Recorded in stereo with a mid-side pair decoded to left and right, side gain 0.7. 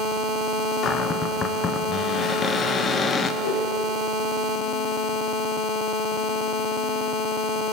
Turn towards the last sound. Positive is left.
turn(degrees=60)